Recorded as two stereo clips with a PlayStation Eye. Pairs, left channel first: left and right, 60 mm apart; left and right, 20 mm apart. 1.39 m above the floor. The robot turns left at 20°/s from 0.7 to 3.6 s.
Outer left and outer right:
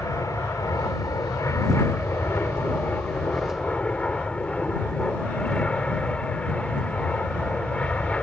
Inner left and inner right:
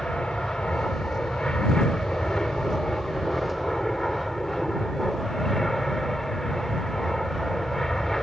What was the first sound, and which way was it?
An aircraft, 80° left.